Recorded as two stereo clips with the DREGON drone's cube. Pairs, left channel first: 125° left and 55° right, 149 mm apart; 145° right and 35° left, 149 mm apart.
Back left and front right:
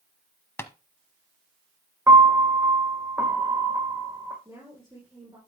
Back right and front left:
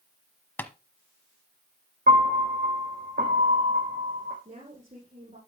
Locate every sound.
0.6 s tapping: 160° left, 1.1 m
2.1 s a piano: 20° left, 2.5 m
4.5 s a woman speaking: 5° left, 6.5 m